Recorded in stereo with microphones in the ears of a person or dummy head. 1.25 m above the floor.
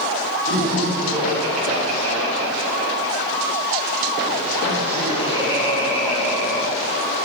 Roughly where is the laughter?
Right.